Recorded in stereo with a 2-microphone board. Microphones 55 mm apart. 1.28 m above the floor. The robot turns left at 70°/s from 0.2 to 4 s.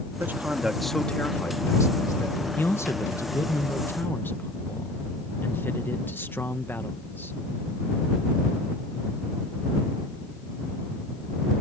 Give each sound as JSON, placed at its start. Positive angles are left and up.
{"t": 0.2, "sound": "a man speaking", "azimuth_deg": -135}
{"t": 2.6, "sound": "a man speaking", "azimuth_deg": 145}